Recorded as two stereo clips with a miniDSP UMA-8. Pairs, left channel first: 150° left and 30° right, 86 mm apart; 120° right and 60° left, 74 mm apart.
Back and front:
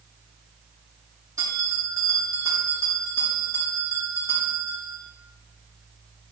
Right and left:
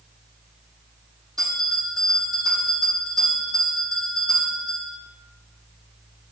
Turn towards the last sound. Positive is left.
turn(degrees=25)